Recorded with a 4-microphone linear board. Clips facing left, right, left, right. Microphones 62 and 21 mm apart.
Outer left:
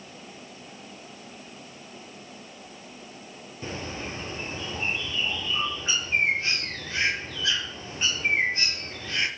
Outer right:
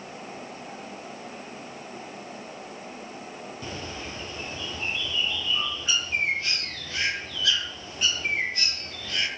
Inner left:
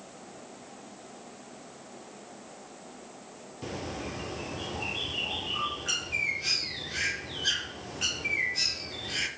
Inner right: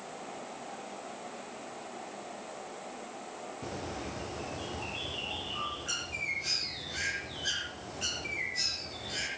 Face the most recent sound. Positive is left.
turn(degrees=25)  # may be behind; listen again after turning